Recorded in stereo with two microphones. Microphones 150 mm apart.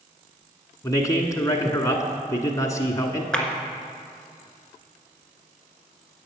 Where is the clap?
5° left (ahead or behind), 1.4 m.